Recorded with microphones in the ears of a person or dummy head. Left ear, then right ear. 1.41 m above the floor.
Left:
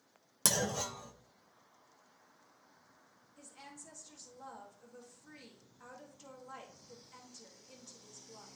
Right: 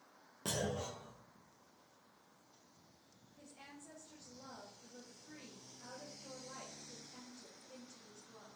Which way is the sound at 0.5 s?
60° left (ahead or behind).